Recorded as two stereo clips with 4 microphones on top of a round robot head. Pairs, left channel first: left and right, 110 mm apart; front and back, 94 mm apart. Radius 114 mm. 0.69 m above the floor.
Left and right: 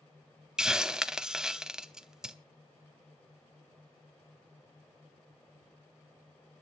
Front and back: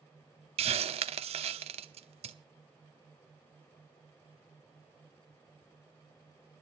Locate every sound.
0.6 s a hiss: 175° right, 0.8 m